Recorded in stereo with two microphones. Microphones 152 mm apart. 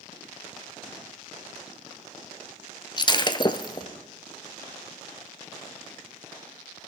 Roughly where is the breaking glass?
Left.